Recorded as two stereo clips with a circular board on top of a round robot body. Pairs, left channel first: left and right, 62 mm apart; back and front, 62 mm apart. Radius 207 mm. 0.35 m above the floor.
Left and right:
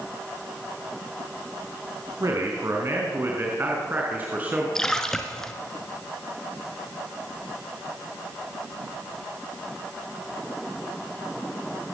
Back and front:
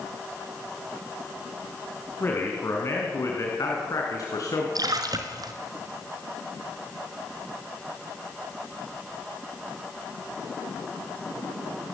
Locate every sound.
2.2 s a man speaking: 125° right, 4.5 m; by 4.7 s 155° right, 6 m
4.8 s a splash: 5° left, 2.5 m